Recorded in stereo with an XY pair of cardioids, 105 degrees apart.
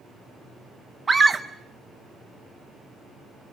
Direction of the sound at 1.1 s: 25° right.